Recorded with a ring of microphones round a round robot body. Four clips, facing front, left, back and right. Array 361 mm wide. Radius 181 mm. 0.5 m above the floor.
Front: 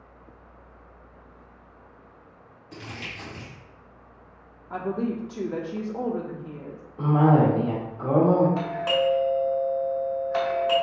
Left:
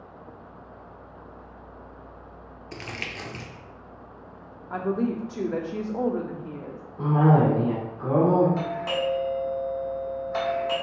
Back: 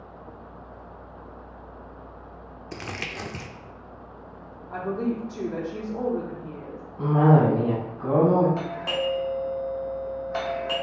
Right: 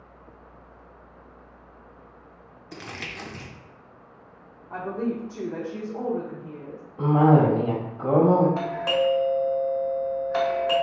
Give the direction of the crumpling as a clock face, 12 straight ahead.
6 o'clock.